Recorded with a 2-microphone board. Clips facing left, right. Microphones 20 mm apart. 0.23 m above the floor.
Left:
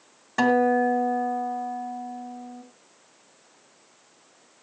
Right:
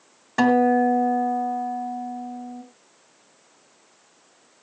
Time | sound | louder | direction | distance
0.4 | a guitar | right 2 dB | 10° right (ahead or behind) | 1.9 m